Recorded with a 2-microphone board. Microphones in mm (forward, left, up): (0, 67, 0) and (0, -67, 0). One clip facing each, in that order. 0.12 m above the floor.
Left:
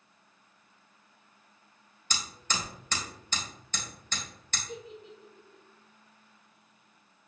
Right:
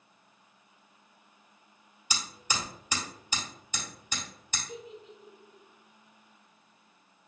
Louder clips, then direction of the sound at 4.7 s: Left 1 dB; 30° left (ahead or behind).